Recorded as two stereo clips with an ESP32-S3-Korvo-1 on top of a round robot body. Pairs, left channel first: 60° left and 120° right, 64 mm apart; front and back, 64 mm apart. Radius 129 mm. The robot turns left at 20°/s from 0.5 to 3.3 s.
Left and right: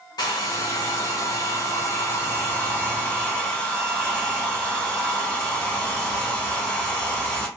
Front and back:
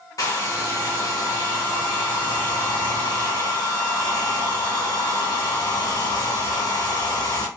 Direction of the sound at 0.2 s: 40° left.